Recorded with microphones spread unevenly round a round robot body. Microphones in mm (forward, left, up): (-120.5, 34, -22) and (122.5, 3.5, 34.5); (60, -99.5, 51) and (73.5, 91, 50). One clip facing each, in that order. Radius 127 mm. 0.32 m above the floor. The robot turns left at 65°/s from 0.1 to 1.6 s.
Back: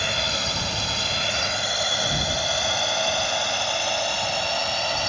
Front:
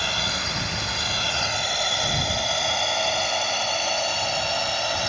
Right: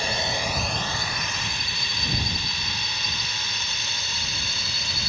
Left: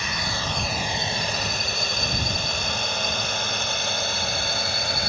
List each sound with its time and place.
0.0 s a drone: 145° right; by 5.1 s 80° left